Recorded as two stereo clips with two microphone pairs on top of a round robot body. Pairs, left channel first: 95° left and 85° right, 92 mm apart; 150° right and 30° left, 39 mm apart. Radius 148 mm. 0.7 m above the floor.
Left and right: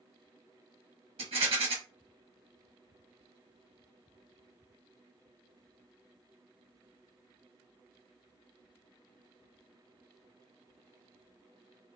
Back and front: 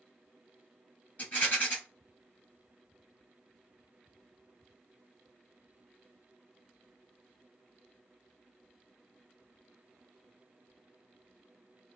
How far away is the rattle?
About 1.3 m.